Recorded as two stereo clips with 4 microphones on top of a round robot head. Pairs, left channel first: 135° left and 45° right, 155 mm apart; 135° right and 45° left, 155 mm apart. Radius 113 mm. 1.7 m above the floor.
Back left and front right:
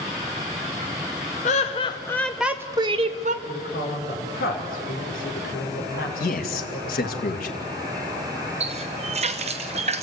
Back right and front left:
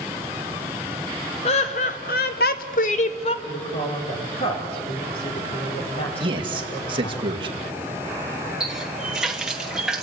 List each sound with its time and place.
1.4 s laughter: 175° left, 0.9 m; by 3.4 s 85° right, 0.9 m
3.5 s a woman speaking: 170° left, 4.5 m
6.2 s a man speaking: 105° left, 2 m
8.6 s a running tap: 40° right, 0.7 m